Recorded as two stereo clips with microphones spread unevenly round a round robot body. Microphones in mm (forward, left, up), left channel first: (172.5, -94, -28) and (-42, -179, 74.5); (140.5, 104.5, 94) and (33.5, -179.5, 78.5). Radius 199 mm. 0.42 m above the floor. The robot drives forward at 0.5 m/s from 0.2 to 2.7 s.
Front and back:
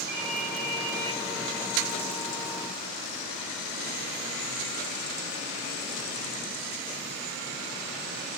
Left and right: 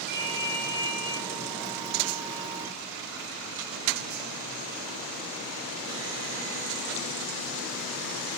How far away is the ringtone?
About 5 m.